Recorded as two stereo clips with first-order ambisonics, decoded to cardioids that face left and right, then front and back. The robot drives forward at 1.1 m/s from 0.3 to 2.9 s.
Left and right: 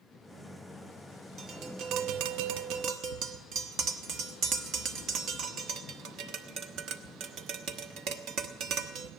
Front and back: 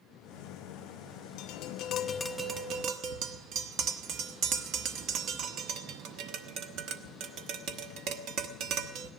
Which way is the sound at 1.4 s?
30° right.